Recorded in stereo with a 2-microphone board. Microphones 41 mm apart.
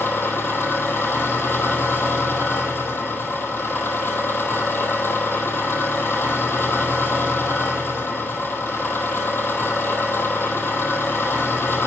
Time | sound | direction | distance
0.0 | an engine running | 70° left (ahead or behind) | 1.1 m